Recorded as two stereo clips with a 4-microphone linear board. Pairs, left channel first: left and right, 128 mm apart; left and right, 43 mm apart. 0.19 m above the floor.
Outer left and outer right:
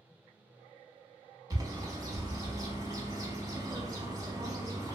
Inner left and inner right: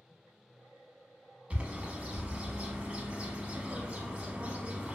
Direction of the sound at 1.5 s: 30° right (ahead or behind).